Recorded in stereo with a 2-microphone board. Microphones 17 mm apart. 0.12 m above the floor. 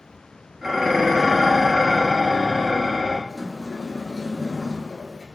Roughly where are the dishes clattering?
Right.